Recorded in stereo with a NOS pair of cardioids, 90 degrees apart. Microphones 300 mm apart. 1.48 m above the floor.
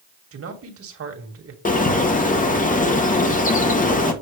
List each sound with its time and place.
0.3 s a man speaking: 50° right, 2.5 m
1.6 s a bird: 25° left, 1.8 m